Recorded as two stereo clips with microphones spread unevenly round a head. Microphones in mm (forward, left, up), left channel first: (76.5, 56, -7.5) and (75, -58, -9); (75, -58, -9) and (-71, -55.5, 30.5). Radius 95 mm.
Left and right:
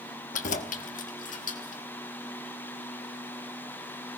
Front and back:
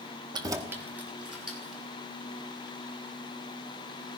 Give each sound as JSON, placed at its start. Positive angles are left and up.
{"t": 0.3, "sound": "keys jangling", "azimuth_deg": 115, "distance_m": 0.8}